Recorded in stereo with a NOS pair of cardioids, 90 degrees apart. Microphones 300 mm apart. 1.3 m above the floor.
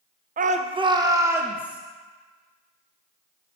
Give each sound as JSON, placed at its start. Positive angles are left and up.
{"t": 0.4, "sound": "a shout", "azimuth_deg": -30, "distance_m": 0.7}